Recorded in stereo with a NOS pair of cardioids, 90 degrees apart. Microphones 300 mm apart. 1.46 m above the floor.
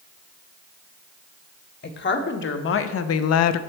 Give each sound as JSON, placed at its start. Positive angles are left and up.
{"t": 1.8, "sound": "a woman speaking", "azimuth_deg": 35, "distance_m": 1.2}